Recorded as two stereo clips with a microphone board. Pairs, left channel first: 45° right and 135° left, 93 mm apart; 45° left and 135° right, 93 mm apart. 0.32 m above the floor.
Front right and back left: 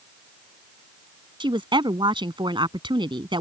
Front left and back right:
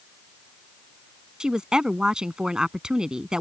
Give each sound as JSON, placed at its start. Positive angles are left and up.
{"t": 1.4, "sound": "a woman speaking", "azimuth_deg": 145}